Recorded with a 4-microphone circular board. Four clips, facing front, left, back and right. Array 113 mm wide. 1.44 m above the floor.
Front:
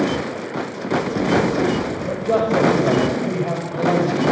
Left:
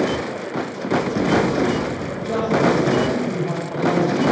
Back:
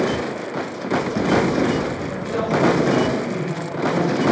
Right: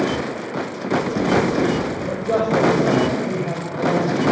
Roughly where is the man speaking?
Ahead right.